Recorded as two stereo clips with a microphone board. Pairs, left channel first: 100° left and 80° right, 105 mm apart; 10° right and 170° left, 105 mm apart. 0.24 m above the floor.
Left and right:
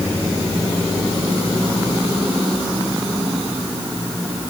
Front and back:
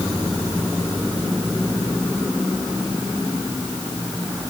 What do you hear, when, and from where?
Only background noise.